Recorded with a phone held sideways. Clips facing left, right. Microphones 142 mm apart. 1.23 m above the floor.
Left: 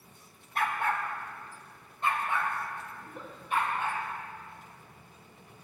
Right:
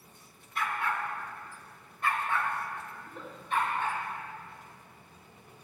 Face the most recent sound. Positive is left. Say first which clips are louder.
# even
turn(degrees=10)  # may be behind; listen again after turning